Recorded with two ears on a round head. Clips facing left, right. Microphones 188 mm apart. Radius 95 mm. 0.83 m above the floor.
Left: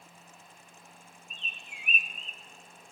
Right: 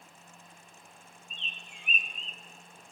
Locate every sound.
1.3 s a bird: 5° left (ahead or behind), 1.2 m